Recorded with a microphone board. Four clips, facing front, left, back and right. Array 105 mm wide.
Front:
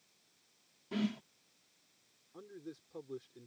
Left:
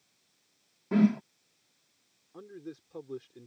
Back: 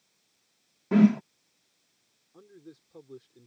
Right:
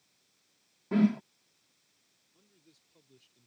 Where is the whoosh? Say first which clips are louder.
Left 2 dB, back 16 dB; 175° left.